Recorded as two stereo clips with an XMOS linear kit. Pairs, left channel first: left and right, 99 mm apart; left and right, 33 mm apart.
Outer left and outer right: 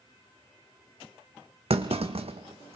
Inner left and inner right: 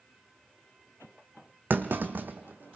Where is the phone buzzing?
I don't hear a phone buzzing.